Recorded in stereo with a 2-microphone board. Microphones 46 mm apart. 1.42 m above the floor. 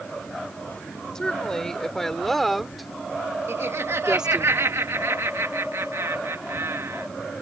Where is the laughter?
85° right.